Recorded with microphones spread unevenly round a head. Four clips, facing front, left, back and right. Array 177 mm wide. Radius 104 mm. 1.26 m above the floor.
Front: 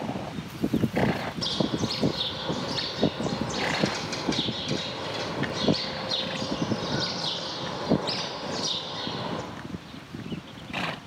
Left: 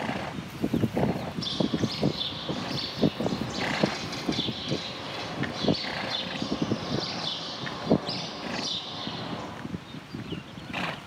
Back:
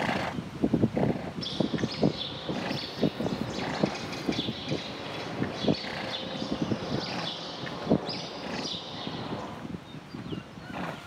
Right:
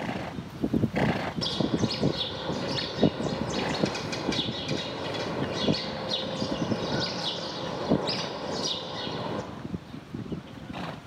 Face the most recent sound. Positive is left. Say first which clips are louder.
# even, front 1 dB
turn(degrees=-80)